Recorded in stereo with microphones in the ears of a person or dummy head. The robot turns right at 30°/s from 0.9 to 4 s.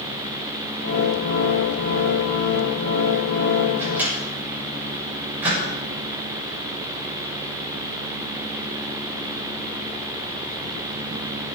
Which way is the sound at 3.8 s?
15° right (ahead or behind).